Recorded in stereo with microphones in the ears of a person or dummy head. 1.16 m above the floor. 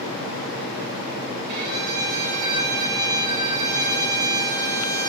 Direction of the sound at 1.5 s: 65° right (ahead or behind).